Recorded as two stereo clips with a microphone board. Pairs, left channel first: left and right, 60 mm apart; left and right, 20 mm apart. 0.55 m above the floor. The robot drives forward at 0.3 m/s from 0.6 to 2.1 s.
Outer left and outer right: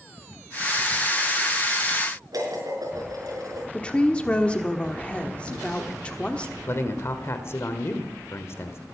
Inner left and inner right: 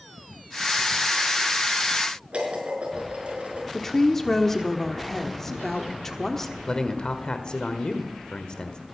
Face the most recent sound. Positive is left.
turn(degrees=45)  # may be behind; listen again after turning